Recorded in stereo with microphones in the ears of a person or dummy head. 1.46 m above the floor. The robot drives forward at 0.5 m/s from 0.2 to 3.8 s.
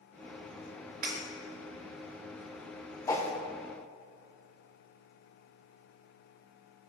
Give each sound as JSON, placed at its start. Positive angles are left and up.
{"t": 1.0, "sound": "breaking glass", "side_deg": -40, "distance_m": 1.5}
{"t": 3.1, "sound": "a whoosh", "side_deg": 15, "distance_m": 0.5}